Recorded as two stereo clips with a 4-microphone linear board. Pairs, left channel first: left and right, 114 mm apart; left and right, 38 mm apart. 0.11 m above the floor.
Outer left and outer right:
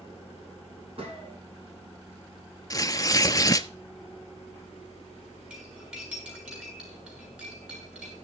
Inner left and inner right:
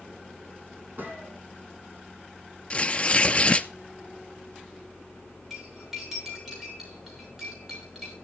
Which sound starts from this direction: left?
Tearing paper, at 2.7 s.